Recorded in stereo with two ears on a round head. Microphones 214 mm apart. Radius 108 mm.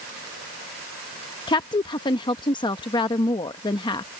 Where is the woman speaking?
20° left (ahead or behind).